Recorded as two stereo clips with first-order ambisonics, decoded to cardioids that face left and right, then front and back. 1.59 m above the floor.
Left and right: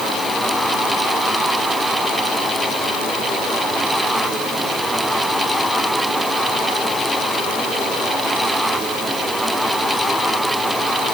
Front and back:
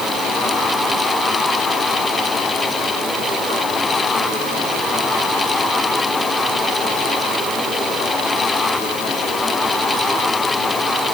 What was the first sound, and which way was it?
Only background noise.